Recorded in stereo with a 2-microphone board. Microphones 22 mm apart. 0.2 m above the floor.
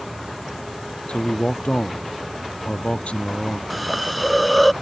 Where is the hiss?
Centre (ahead or behind).